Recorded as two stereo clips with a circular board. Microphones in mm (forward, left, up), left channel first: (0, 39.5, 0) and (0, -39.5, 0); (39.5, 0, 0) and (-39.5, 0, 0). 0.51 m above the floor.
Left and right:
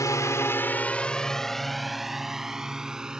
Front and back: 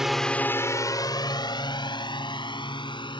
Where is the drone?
100° left; by 3.2 s 10° right.